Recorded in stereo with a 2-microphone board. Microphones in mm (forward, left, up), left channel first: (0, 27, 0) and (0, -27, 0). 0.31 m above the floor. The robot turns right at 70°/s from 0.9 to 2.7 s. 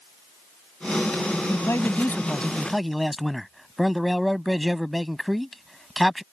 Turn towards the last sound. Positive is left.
turn(degrees=180)